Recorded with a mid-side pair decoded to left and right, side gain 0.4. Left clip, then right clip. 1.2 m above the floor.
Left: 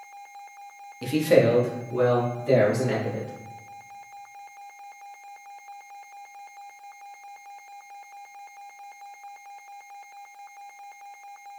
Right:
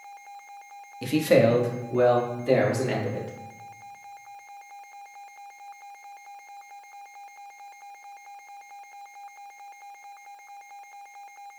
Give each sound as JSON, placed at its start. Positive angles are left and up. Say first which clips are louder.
{"t": 1.0, "sound": "a man speaking", "louder": "even", "azimuth_deg": -20, "distance_m": 1.1}